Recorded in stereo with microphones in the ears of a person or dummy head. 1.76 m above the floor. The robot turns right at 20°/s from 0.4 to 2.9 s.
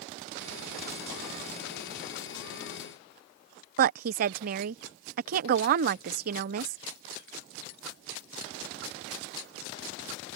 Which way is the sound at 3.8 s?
55° right (ahead or behind).